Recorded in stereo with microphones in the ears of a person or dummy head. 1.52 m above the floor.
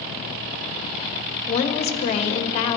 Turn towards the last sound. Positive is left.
turn(degrees=35)  # may be behind; listen again after turning